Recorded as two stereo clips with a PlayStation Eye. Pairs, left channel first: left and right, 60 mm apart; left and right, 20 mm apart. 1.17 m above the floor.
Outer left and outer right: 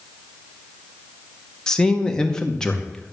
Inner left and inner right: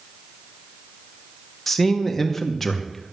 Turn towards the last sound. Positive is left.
turn(degrees=15)  # may be behind; listen again after turning